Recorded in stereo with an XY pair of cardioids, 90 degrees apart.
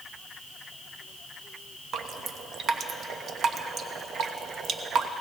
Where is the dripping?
70° right, 1.0 m.